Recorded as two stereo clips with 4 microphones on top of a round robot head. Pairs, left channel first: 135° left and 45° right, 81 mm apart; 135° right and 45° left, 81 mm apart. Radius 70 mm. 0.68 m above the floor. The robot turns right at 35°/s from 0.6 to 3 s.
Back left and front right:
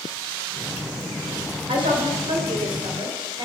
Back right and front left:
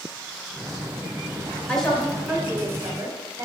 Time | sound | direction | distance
1.7 | a woman speaking | 55° right | 2.5 m